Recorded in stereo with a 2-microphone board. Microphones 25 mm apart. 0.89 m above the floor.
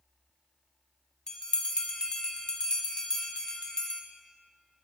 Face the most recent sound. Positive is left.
turn(degrees=30)  # may be behind; listen again after turning